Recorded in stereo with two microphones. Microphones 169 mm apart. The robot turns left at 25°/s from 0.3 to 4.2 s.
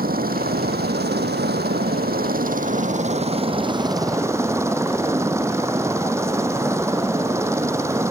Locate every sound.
0.0 s a helicopter: 65° right; by 8.1 s 165° right